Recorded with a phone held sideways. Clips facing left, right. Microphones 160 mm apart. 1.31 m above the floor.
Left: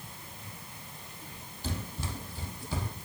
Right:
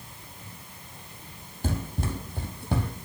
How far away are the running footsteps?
About 2.5 m.